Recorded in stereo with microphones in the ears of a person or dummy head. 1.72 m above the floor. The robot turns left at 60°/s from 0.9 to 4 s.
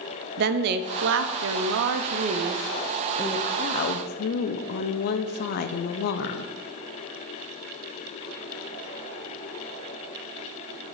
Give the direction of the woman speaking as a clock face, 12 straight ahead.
2 o'clock.